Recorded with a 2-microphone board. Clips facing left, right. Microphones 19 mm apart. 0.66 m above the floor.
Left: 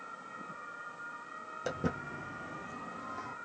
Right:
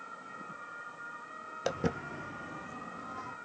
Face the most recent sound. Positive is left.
turn(degrees=5)  # may be behind; listen again after turning